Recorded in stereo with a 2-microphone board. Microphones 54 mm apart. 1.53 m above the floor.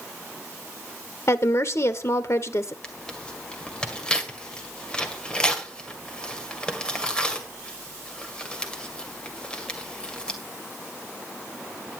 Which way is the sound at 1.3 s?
60° left (ahead or behind).